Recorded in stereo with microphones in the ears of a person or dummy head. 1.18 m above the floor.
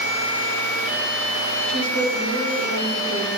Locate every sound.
1.7 s a woman speaking: 60° right (ahead or behind), 3 m